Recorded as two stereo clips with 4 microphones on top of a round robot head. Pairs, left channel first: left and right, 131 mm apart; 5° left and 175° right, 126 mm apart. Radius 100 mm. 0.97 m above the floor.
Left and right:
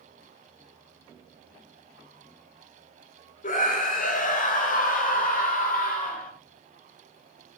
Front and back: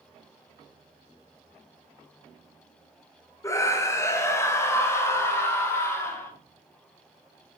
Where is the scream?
75° left, 3 m; by 6.3 s 80° left, 5 m.